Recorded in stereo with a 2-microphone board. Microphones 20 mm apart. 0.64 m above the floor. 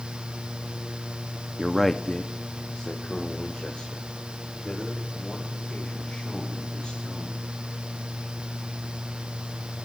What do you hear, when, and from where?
1.6 s a man speaking: 10° right (ahead or behind), 0.6 m; by 7.4 s 60° left (ahead or behind), 5 m